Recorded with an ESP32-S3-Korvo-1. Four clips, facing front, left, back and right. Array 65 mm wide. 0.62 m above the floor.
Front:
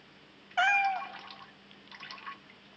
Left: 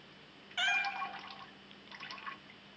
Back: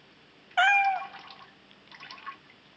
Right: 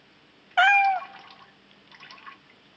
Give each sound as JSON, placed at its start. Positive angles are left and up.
{"t": 0.6, "sound": "a cat meowing", "azimuth_deg": -100, "distance_m": 0.6}